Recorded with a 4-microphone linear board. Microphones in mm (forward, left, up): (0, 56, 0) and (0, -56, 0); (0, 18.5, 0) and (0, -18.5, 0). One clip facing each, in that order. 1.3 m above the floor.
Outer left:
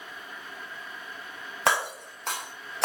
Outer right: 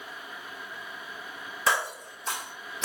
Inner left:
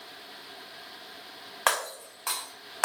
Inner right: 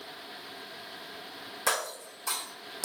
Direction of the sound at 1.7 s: 65° left (ahead or behind).